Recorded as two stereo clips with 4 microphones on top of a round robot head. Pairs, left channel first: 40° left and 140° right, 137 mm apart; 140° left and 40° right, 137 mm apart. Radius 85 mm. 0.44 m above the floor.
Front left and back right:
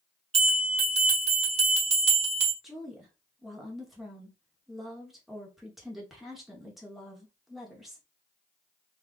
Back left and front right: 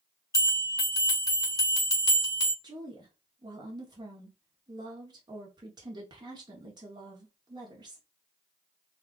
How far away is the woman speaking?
About 1.0 m.